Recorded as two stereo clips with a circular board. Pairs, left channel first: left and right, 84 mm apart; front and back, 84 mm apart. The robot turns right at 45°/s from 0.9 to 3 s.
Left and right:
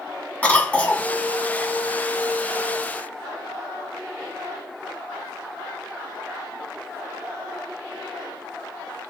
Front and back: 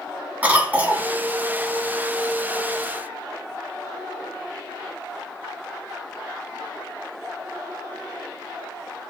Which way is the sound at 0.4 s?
145° left.